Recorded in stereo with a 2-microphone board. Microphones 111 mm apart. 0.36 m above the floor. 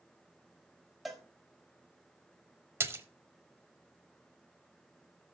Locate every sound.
1.1 s a cowbell: centre (ahead or behind), 1.2 m
2.8 s a splash: 20° right (ahead or behind), 0.7 m